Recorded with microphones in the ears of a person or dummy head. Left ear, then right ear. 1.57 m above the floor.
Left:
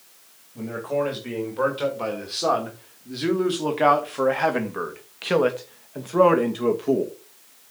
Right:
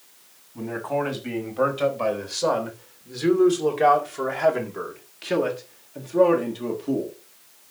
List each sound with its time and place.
0.6 s a man speaking: 15° right (ahead or behind), 3.5 m; by 7.1 s 55° left (ahead or behind), 2.5 m